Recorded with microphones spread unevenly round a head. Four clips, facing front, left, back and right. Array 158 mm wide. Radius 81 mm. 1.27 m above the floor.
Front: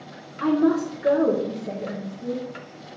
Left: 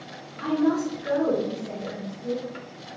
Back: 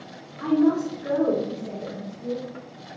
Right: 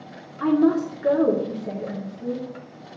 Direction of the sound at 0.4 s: 50° right.